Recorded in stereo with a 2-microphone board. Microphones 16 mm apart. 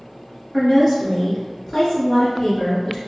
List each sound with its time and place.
0.5 s a woman speaking: 5° left (ahead or behind), 1.9 m; by 3.0 s 40° left (ahead or behind), 1.8 m